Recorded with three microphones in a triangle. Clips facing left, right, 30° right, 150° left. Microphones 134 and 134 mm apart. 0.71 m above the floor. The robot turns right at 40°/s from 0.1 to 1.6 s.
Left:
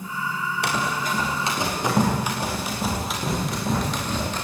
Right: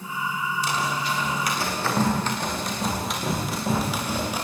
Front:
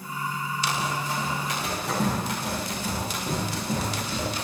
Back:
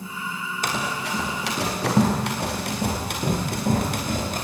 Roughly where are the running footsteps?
Left.